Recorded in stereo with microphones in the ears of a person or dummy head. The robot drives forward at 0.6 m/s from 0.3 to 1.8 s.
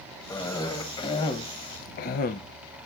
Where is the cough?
20° left (ahead or behind), 1.3 m; by 2.4 s 45° left (ahead or behind), 0.5 m.